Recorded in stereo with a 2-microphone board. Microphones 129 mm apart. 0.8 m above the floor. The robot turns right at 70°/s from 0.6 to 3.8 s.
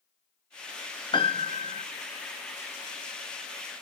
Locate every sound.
1.1 s a piano: 40° left, 0.6 m; by 1.9 s 95° left, 0.6 m